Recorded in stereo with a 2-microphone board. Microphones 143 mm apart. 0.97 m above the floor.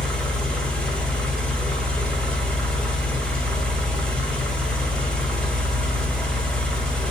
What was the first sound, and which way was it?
An engine running, 5° left (ahead or behind).